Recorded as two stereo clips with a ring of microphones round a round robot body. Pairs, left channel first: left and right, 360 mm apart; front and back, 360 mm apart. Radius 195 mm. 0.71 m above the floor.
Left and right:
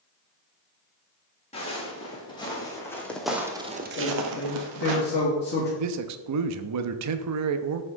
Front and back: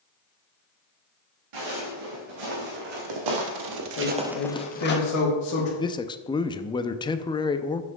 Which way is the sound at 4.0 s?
30° left.